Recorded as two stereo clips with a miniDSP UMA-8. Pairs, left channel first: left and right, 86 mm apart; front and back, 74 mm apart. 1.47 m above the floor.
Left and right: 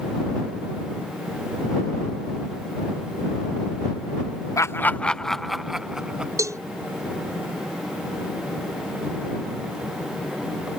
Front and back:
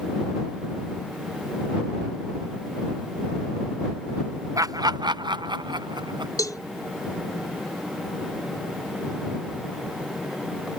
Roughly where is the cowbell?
Ahead right.